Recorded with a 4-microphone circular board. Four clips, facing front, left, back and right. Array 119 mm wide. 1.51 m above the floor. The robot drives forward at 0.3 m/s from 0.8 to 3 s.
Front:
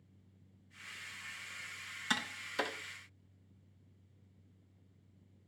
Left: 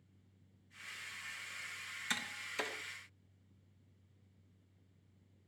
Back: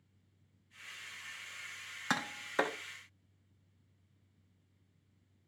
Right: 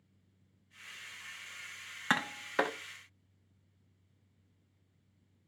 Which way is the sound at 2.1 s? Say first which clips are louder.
Right 12 dB, back 4 dB; 115° right.